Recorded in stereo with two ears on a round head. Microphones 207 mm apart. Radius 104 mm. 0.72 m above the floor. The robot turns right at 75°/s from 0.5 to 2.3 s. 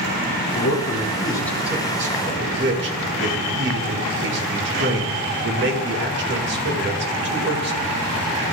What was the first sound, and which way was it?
A man speaking, 105° left.